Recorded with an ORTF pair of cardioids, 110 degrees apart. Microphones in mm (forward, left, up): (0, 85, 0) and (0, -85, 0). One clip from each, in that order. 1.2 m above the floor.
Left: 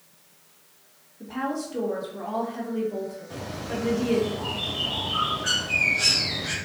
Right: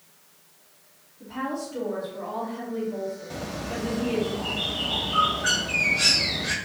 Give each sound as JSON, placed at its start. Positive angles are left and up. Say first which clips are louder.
{"t": 1.2, "sound": "a woman speaking", "louder": "left 1 dB", "azimuth_deg": 35, "distance_m": 1.5}
{"t": 3.3, "sound": "a bird", "louder": "even", "azimuth_deg": -20, "distance_m": 1.0}